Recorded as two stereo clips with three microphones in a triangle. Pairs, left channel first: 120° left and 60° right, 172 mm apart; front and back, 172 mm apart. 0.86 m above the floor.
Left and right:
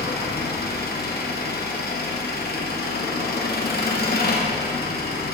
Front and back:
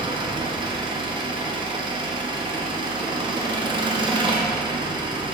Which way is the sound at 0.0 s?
120° left.